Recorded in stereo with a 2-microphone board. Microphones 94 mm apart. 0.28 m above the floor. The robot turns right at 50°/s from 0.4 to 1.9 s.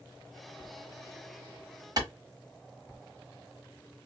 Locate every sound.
2.0 s a clap: 45° right (ahead or behind), 1.2 m